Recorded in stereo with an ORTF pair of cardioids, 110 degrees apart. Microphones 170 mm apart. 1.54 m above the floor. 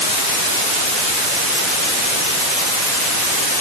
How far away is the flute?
I don't hear a flute.